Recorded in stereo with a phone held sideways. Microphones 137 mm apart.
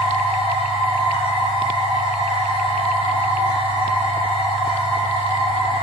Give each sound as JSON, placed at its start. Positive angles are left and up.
{"t": 0.0, "sound": "a machine running", "side_deg": 45, "distance_m": 1.3}